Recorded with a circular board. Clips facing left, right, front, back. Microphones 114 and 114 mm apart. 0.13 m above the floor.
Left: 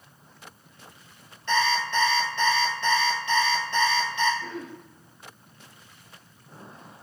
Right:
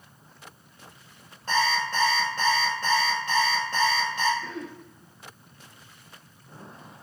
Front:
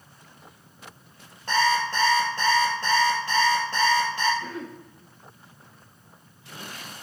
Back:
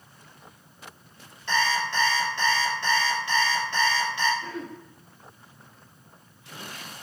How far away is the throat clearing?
About 2 m.